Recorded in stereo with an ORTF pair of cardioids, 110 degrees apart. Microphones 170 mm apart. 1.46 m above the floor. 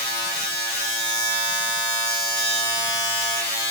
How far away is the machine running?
About 1.2 m.